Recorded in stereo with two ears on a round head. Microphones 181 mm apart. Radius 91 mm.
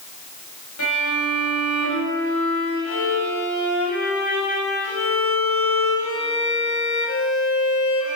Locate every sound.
0.8 s a violin: 90° left, 5.5 m